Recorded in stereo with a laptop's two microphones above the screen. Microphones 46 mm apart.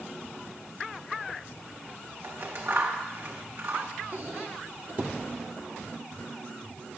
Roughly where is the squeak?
Right.